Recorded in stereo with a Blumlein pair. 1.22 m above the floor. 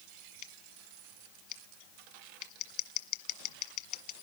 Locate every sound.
0.4 s scissors: 40° left, 1.4 m